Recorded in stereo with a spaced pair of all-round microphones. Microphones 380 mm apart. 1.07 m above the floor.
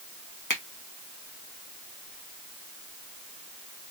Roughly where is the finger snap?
Left.